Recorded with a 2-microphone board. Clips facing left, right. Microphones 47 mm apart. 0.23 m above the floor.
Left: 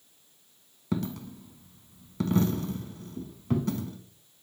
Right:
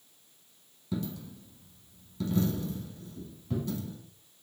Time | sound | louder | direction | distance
0.9 | a dropped coin | left 4 dB | 60° left (ahead or behind) | 0.8 m